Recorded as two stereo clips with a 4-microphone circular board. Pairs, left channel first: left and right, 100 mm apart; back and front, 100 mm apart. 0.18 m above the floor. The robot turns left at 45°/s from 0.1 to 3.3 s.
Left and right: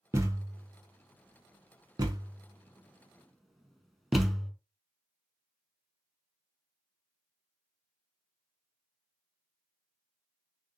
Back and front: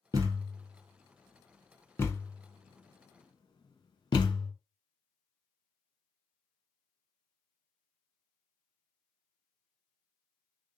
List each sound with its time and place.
0.1 s a thud: 40° right, 1.0 m; by 4.5 s straight behind, 1.0 m